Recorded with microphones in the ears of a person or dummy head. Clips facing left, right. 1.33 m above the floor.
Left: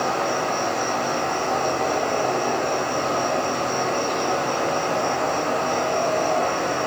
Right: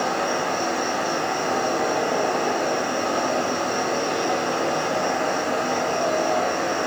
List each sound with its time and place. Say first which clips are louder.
0.0 s an insect: even; 20° right (ahead or behind), 1.6 m